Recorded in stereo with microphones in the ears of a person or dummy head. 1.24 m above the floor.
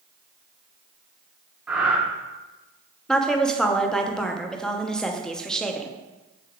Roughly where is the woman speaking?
Centre.